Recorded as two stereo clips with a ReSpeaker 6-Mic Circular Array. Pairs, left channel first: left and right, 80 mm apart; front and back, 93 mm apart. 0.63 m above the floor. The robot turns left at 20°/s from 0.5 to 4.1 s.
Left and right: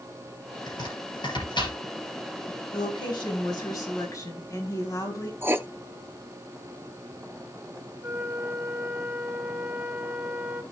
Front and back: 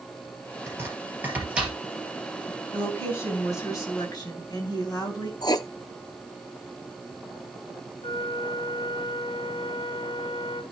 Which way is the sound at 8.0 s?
20° right.